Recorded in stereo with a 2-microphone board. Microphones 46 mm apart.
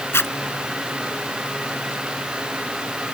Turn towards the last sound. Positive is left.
turn(degrees=65)  # may be behind; listen again after turning